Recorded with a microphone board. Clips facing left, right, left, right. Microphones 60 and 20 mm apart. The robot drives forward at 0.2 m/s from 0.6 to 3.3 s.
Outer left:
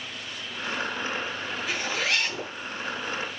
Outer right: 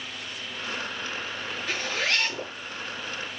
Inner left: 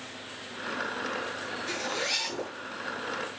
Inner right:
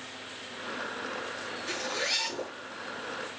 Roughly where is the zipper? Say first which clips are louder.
Even, even; centre.